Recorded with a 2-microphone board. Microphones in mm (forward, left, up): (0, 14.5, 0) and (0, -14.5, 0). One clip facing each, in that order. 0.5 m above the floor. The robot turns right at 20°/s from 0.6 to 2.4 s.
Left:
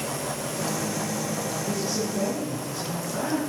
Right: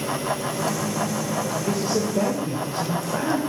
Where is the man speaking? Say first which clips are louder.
Right 5 dB; 60° right (ahead or behind), 1.4 m; by 3.4 s 50° right (ahead or behind), 1.4 m.